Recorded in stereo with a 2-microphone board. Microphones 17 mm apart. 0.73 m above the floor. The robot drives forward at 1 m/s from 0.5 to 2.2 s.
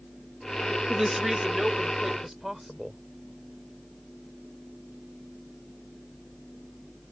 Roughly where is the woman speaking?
Right.